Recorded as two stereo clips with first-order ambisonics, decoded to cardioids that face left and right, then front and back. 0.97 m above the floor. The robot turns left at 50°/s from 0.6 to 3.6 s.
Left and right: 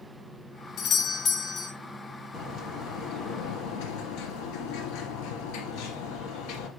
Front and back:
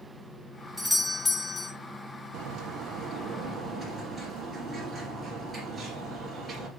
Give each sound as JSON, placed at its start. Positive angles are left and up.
{"t": 0.8, "sound": "a doorbell", "azimuth_deg": 95, "distance_m": 0.7}
{"t": 2.3, "sound": "a bird", "azimuth_deg": 155, "distance_m": 2.5}